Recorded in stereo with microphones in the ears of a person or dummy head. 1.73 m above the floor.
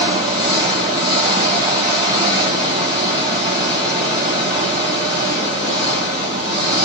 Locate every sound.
0.0 s an engine running: 20° right (ahead or behind), 0.7 m